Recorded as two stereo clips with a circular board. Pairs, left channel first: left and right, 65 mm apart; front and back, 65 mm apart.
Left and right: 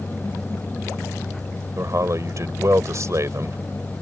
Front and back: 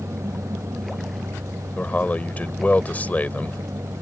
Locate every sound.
1.8 s a man speaking: 65° right